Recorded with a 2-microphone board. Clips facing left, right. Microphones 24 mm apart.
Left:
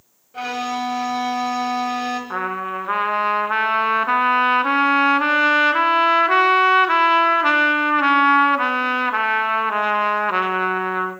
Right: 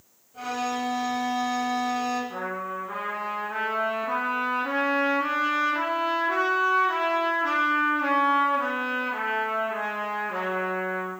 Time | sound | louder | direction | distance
0.3 | a violin | left 4 dB | 55° left (ahead or behind) | 1.6 m
2.3 | a trumpet | left 7 dB | 75° left (ahead or behind) | 0.6 m